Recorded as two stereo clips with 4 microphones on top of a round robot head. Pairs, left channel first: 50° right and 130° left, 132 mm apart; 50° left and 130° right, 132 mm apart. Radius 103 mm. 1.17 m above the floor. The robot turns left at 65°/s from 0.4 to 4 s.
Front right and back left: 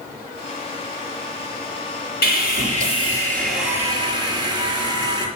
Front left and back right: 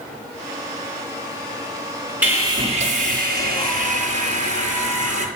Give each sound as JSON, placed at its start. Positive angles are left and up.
{"t": 2.2, "sound": "sawing", "azimuth_deg": -50, "distance_m": 5.5}